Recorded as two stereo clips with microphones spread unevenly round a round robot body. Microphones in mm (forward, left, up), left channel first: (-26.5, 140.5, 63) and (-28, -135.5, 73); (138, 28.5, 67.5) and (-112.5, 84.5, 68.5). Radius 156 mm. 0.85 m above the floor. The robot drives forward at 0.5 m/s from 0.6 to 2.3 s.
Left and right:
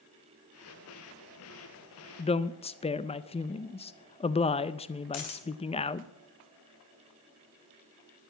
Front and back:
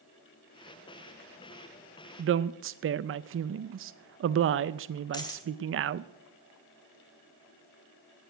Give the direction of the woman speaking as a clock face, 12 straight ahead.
7 o'clock.